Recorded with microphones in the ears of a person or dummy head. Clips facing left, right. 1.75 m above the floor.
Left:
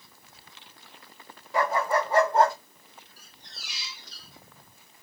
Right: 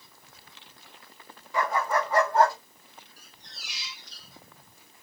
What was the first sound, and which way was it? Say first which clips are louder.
A dog barking: left 2 dB; 35° left (ahead or behind).